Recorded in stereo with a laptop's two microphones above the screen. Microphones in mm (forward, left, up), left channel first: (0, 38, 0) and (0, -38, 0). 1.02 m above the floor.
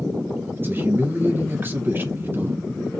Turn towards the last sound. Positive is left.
turn(degrees=-30)  # may be behind; listen again after turning